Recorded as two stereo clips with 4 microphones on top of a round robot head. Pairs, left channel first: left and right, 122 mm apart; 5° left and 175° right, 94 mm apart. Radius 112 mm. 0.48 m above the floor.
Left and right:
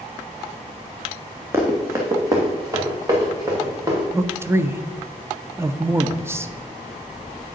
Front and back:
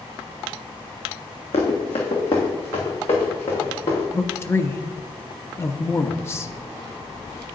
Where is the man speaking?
35° right, 0.8 m.